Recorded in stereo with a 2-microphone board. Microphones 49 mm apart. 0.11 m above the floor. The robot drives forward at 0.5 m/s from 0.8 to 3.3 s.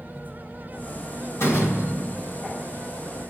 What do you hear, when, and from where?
1.4 s a door slam: 75° left (ahead or behind), 3 m; by 2.5 s 70° left (ahead or behind), 3 m